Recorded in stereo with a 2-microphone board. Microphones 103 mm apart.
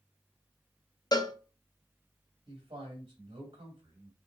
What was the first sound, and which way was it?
A cowbell, 40° left (ahead or behind).